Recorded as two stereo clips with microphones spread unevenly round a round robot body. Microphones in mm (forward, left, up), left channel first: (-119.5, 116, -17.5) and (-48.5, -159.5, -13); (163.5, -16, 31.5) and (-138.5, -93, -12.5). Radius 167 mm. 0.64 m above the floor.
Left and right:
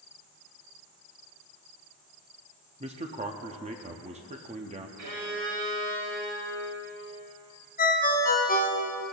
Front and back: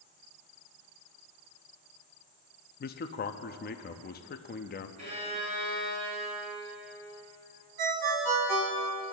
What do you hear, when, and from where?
2.8 s a man speaking: 30° right, 0.5 m
5.0 s a violin: 95° right, 4 m
7.8 s a ringtone: 165° left, 2 m